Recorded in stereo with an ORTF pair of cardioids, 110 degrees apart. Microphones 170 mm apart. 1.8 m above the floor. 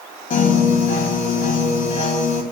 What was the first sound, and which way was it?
A piano, 55° left.